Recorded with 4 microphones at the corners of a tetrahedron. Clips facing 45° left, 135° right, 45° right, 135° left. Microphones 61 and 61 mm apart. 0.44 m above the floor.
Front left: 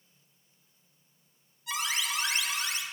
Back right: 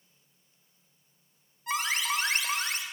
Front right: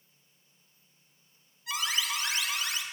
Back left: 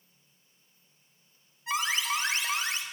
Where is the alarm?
170° right, 1.7 m.